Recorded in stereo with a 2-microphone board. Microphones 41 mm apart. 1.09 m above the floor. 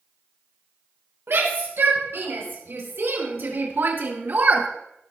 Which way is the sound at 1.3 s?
80° right.